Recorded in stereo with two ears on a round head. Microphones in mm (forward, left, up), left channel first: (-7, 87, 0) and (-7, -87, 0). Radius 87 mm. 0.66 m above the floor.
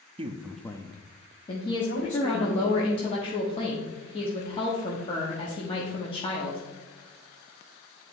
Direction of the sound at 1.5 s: 25° left (ahead or behind).